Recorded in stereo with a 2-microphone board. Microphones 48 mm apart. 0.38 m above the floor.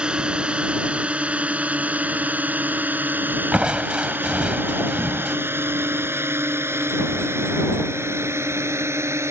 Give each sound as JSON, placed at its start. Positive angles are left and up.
{"t": 0.0, "sound": "a drone", "side_deg": -20}
{"t": 3.5, "sound": "crushing", "side_deg": -20}